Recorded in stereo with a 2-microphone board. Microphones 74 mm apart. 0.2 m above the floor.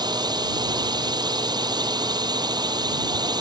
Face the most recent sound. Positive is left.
turn(degrees=-70)  # may be behind; listen again after turning